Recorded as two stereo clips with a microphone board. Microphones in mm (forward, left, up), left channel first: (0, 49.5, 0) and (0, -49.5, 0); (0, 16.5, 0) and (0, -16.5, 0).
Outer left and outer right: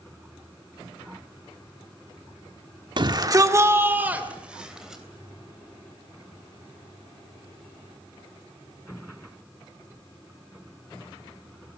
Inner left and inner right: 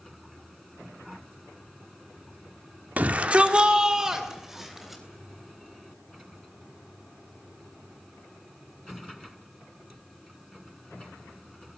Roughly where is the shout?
Right.